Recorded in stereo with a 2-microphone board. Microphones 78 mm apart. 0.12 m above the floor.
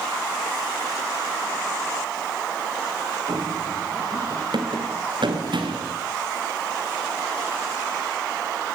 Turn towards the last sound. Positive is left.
turn(degrees=-85)